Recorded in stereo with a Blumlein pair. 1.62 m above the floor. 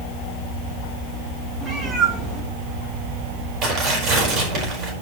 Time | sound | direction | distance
1.6 | a cat meowing | 5° right | 4.5 m
3.6 | tearing paper | 30° right | 5.5 m